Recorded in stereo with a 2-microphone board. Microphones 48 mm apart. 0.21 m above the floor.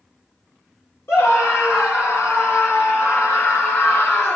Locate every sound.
1.1 s a scream: 70° left (ahead or behind), 5.5 m; by 4.4 s 55° left (ahead or behind), 3 m